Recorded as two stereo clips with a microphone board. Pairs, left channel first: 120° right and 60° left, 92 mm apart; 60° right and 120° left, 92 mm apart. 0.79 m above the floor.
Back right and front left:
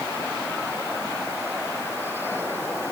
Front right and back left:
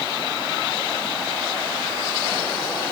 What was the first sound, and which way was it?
Only background noise.